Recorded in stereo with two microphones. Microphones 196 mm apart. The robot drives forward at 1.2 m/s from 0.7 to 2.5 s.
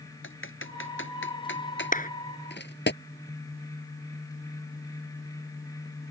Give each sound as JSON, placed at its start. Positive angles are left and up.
{"t": 0.2, "sound": "typing on a keyboard", "side_deg": 85}
{"t": 1.9, "sound": "a clap", "side_deg": 40}